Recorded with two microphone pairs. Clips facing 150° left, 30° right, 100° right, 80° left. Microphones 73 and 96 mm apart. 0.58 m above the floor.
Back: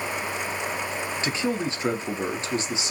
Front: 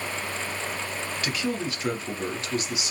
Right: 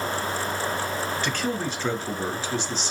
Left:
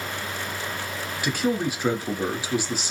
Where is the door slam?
I don't hear a door slam.